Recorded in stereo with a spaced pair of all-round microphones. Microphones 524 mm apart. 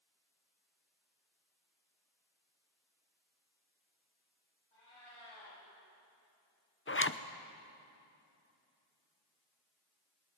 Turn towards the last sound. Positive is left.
turn(degrees=25)  # may be behind; listen again after turning